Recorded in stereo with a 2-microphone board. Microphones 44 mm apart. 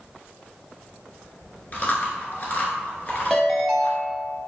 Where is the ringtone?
5° left (ahead or behind), 0.8 m.